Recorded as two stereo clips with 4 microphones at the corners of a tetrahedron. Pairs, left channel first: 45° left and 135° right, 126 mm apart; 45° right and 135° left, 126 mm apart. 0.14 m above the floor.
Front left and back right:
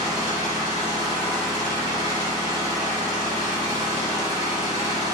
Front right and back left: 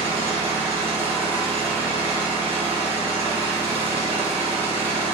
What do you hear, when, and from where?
0.0 s an engine running: 80° left, 1.4 m